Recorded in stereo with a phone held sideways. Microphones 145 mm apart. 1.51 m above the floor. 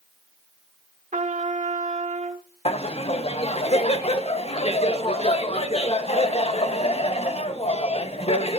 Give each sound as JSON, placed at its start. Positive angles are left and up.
{"t": 1.1, "sound": "a trumpet", "side_deg": -60, "distance_m": 1.0}
{"t": 2.6, "sound": "laughter", "side_deg": 45, "distance_m": 0.9}